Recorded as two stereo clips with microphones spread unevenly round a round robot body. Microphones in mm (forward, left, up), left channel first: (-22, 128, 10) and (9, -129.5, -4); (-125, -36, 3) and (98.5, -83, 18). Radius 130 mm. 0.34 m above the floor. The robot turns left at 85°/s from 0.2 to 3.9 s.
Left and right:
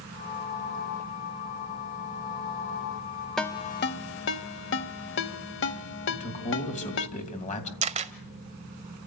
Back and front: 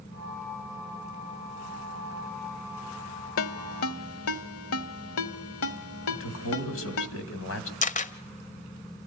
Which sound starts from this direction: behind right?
A camera shutter, at 7.8 s.